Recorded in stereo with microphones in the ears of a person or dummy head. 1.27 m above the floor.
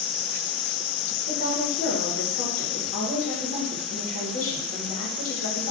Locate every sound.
1.3 s a woman speaking: 65° left (ahead or behind), 1.0 m